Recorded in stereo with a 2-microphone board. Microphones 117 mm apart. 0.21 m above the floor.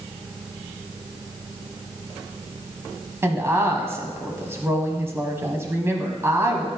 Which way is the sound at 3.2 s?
20° right (ahead or behind).